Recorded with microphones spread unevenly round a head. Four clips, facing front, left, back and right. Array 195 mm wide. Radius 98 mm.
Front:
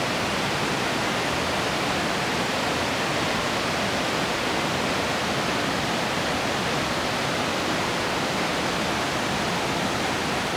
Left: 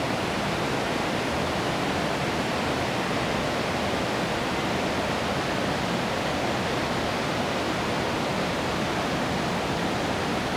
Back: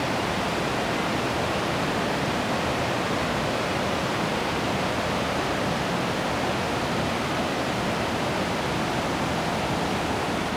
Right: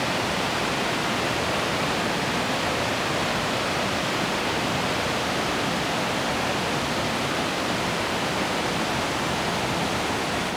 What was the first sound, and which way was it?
Only background noise.